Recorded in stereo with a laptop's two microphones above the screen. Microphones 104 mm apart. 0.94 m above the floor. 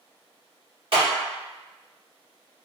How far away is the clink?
No clink in this recording.